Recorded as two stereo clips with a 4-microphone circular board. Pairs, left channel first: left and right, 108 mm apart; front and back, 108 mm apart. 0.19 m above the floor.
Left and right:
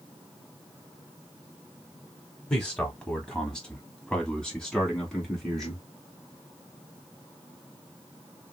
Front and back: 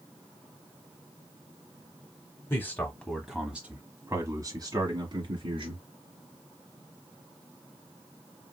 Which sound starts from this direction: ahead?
A man speaking, at 2.5 s.